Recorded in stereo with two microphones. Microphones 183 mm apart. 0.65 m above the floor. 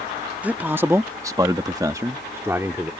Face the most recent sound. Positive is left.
turn(degrees=-15)  # may be behind; listen again after turning